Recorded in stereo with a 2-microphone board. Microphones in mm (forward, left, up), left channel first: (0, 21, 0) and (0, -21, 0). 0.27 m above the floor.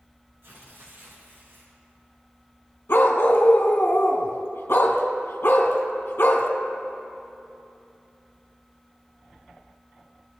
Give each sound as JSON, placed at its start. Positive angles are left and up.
{"t": 0.4, "sound": "tearing paper", "side_deg": -80, "distance_m": 5.5}
{"t": 2.9, "sound": "a dog barking", "side_deg": 70, "distance_m": 2.5}